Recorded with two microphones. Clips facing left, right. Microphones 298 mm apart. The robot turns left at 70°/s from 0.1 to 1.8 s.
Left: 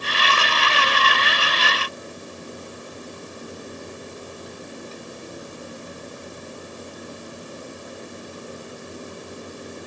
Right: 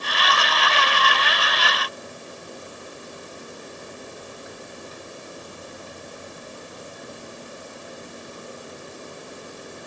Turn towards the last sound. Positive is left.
No sound to turn to.